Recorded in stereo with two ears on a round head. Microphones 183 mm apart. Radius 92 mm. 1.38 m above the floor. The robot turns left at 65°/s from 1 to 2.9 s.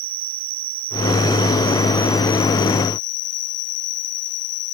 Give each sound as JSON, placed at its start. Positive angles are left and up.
{"t": 0.0, "sound": "an insect", "azimuth_deg": -105}